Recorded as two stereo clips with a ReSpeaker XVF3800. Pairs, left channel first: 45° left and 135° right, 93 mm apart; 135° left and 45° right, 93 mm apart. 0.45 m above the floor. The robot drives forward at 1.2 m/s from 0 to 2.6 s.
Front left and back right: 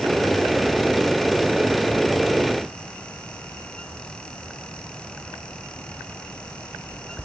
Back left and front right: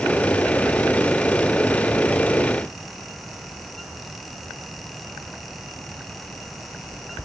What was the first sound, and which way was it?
Only background noise.